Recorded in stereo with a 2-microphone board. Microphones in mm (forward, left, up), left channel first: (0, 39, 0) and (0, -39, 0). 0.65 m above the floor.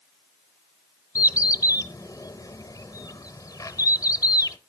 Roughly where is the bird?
Left.